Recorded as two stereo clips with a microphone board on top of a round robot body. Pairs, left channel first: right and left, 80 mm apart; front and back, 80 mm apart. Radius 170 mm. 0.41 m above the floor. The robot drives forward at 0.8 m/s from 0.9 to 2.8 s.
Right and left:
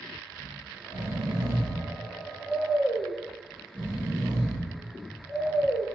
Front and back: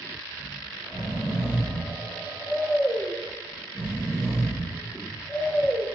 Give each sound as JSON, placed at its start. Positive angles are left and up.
{"t": 0.3, "sound": "snoring", "azimuth_deg": 90, "distance_m": 3.5}